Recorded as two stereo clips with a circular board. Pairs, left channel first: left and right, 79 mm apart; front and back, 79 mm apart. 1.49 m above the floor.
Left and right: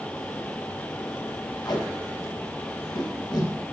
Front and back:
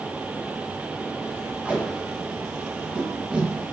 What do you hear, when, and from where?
1.6 s tape being pulled: 105° left, 1.1 m